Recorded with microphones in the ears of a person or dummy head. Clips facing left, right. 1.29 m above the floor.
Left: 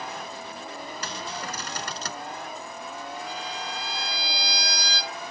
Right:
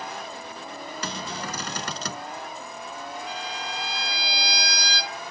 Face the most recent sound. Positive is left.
turn(degrees=-60)  # may be behind; listen again after turning